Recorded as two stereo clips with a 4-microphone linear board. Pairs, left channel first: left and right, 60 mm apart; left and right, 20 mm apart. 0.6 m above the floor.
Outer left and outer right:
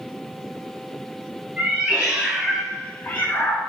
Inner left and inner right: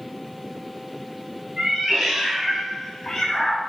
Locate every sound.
1.6 s a cat meowing: 20° right (ahead or behind), 1.2 m; by 3.6 s 45° left (ahead or behind), 0.8 m